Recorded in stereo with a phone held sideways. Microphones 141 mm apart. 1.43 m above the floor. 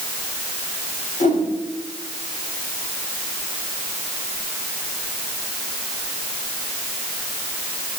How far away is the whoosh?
About 3.5 m.